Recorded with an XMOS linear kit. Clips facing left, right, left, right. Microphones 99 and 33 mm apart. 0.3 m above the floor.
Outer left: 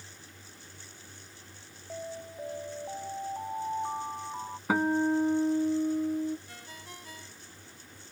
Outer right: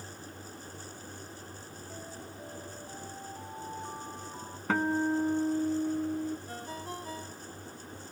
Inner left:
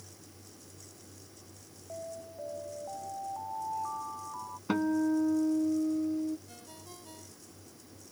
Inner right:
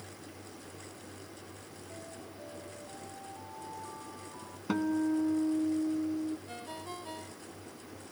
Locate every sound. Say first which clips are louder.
1.9 s an alarm: outer left 8 dB, inner left 7 dB; 35° left (ahead or behind)
4.7 s a guitar: outer left 2 dB, inner left 2 dB; 10° left (ahead or behind)
6.5 s a ringtone: outer right 8 dB, inner right 8 dB; 35° right (ahead or behind)